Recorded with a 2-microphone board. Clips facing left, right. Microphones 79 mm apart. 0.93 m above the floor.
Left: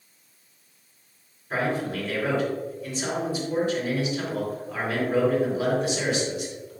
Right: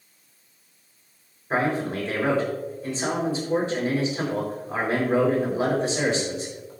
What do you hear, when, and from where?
1.5 s a man speaking: 30° right (ahead or behind), 4 m